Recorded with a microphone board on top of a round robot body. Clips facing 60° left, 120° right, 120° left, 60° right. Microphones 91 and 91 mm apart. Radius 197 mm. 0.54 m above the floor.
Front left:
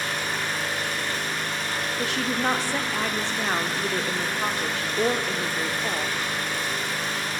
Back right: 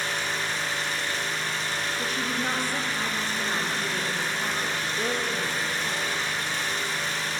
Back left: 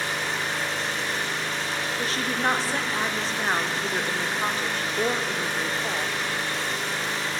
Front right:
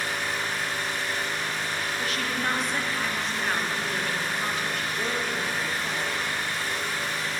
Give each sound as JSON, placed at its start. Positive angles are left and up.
{"t": 0.0, "sound": "an engine running", "azimuth_deg": 110, "distance_m": 4.0}
{"t": 2.0, "sound": "a woman speaking", "azimuth_deg": 60, "distance_m": 1.6}